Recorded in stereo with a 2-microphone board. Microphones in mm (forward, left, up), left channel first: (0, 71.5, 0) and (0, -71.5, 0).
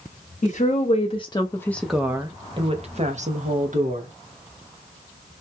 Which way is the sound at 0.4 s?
55° left (ahead or behind).